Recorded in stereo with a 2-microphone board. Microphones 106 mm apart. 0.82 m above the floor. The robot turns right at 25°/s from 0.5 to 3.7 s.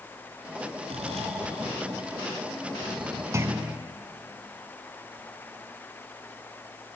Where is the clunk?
30° right (ahead or behind), 1.2 m; by 3.8 s 20° right (ahead or behind), 1.2 m.